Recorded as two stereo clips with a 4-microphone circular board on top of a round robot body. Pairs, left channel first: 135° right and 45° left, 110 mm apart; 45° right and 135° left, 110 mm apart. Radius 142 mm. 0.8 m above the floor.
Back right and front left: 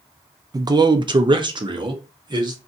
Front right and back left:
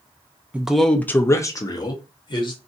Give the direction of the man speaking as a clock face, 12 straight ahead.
10 o'clock.